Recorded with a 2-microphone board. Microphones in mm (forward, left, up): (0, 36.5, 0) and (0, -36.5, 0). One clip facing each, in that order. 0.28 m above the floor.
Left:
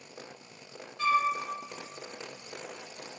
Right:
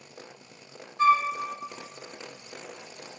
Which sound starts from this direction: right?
A flute, at 1.0 s.